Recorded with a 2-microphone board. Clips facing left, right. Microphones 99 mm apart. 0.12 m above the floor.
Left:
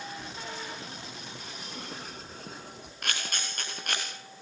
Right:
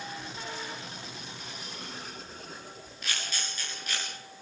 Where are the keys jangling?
80° left, 7.5 m; by 2.9 s 70° left (ahead or behind), 4 m.